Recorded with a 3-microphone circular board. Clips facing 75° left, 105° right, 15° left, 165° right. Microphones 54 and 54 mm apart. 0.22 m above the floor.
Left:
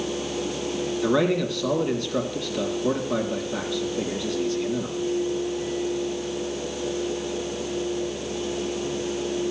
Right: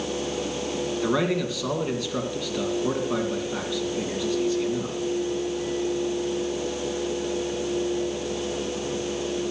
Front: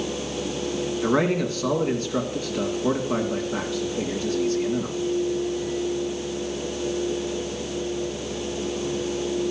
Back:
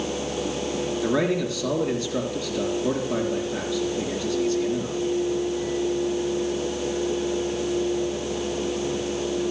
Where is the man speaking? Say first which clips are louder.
Left 3 dB, front 2 dB; 20° right, 2.5 m.